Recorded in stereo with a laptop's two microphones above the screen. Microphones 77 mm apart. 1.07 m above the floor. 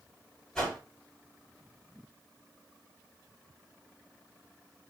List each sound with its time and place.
0.6 s a whoosh: 10° left (ahead or behind), 1.8 m